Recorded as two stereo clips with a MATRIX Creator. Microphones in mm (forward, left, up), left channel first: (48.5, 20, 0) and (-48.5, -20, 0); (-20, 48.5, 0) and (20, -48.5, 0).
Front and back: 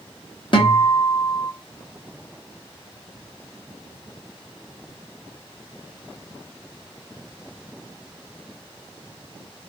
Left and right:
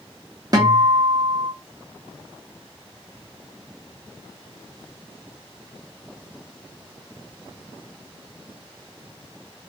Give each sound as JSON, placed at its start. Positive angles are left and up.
{"t": 0.5, "sound": "a guitar", "azimuth_deg": -15, "distance_m": 0.9}